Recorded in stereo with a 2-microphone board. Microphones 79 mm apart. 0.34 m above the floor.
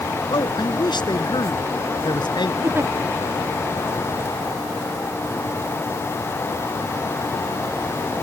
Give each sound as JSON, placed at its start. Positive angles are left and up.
{"t": 0.3, "sound": "a man speaking", "side_deg": 65}
{"t": 2.6, "sound": "a giggle", "side_deg": -30}